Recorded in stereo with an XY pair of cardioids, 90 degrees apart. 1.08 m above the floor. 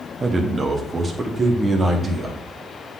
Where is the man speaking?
40° right, 1.3 m; by 2.4 s 30° right, 2.5 m.